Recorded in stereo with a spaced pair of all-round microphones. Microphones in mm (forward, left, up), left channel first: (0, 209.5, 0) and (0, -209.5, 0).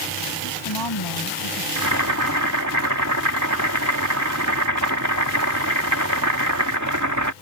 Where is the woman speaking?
70° left (ahead or behind).